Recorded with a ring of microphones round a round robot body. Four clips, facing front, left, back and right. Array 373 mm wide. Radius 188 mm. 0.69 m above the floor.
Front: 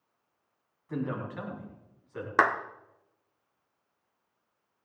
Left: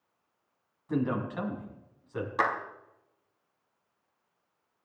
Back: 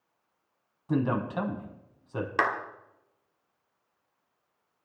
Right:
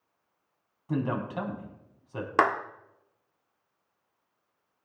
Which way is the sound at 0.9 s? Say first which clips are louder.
Even, back 6 dB; 155° right.